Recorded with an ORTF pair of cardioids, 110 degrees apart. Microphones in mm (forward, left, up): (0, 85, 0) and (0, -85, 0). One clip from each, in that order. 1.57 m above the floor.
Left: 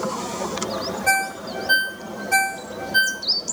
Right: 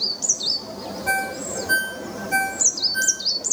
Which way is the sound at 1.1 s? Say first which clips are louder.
Left 2 dB; 15° left.